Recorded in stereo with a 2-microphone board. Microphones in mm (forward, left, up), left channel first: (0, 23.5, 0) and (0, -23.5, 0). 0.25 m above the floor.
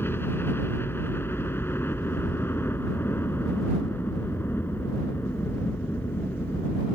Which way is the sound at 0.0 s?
55° left (ahead or behind).